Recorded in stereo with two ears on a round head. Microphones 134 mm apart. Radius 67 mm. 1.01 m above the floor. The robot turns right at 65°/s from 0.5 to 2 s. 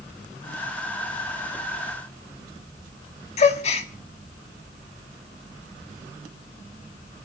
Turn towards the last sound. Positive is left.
turn(degrees=45)  # may be behind; listen again after turning